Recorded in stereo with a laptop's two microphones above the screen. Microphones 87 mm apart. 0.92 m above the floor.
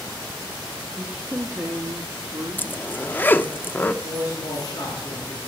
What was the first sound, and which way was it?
A woman speaking, 15° right (ahead or behind).